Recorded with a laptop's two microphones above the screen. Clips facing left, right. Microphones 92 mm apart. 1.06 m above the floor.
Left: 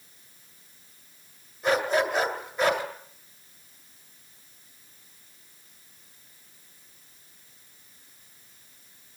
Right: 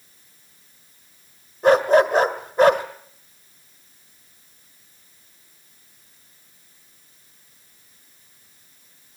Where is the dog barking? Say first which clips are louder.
Right 9 dB; 50° right (ahead or behind), 1.7 m.